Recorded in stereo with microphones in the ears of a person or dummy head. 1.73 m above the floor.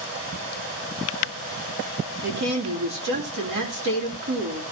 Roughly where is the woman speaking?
Right.